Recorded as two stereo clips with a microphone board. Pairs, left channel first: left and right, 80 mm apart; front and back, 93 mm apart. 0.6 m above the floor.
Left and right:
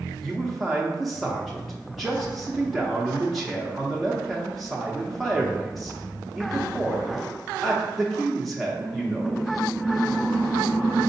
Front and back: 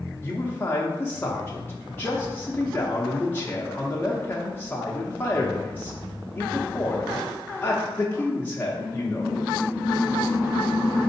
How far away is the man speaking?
About 0.5 m.